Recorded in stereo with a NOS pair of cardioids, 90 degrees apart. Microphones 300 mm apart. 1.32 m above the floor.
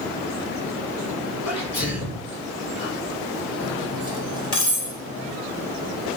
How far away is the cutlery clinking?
About 3.5 m.